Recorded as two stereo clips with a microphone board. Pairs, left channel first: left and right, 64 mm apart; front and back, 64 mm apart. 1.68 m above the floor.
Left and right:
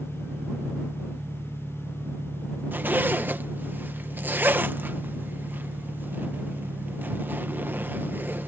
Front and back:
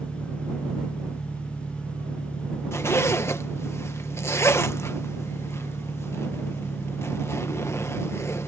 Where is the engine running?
55° right.